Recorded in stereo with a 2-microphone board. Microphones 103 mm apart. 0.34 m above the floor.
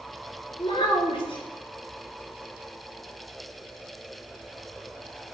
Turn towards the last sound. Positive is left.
turn(degrees=60)  # may be behind; listen again after turning